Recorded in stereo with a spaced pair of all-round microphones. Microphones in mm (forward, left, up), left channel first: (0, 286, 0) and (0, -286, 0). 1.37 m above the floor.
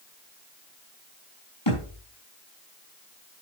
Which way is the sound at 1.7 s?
50° left (ahead or behind).